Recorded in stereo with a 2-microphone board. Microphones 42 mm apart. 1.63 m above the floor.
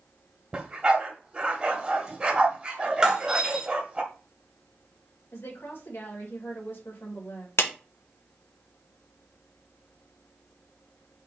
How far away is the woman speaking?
About 2.5 m.